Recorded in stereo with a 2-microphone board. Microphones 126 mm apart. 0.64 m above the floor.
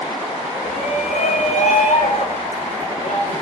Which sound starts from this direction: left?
A shout, at 0.6 s.